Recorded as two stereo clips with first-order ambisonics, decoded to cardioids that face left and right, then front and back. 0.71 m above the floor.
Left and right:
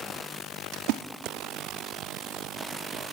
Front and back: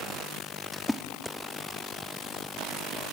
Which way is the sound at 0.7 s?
85° right.